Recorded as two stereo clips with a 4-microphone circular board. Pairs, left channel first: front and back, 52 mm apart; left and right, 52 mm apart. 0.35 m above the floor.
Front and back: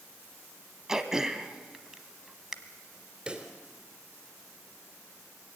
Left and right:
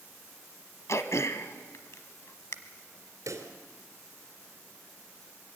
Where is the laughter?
I don't hear laughter.